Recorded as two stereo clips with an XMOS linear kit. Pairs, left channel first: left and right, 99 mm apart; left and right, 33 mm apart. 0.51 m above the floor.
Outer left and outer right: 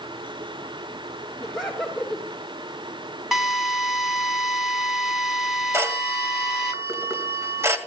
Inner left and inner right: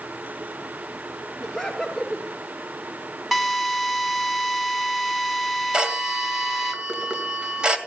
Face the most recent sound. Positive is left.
turn(degrees=-30)  # may be behind; listen again after turning